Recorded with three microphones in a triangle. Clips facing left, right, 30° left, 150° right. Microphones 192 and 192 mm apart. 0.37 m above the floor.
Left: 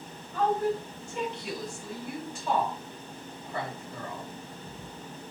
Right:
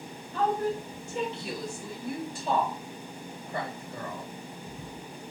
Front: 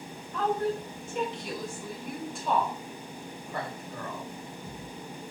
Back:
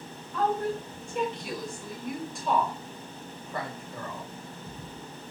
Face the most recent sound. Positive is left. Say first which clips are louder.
# left 1 dB, even
turn(degrees=-60)